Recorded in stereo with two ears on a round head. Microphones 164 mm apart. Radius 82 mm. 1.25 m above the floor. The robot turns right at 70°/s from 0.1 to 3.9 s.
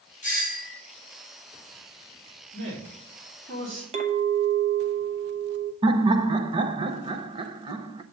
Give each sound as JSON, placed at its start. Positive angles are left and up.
{"t": 0.2, "sound": "a doorbell", "azimuth_deg": 50, "distance_m": 1.8}
{"t": 2.5, "sound": "a man speaking", "side_deg": -55, "distance_m": 3.5}
{"t": 3.9, "sound": "a clink", "side_deg": -35, "distance_m": 0.9}
{"t": 5.8, "sound": "laughter", "side_deg": -25, "distance_m": 0.6}